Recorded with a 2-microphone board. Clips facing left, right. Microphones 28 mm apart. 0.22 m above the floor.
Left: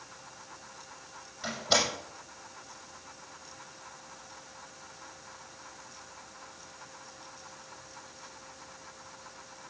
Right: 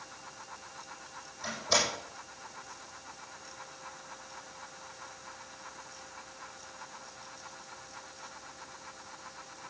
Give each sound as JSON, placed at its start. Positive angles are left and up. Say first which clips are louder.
{"t": 1.4, "sound": "a door slam", "louder": "left 2 dB", "side_deg": 50, "distance_m": 6.5}